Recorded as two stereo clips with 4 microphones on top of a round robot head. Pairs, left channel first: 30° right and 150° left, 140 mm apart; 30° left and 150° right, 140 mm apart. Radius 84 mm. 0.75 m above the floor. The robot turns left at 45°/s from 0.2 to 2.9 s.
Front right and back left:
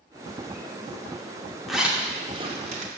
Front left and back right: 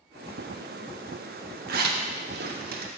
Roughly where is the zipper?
Behind right.